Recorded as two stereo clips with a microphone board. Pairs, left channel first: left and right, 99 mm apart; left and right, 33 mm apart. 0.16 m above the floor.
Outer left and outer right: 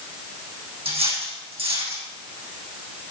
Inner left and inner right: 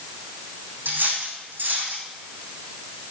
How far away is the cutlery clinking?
About 4 m.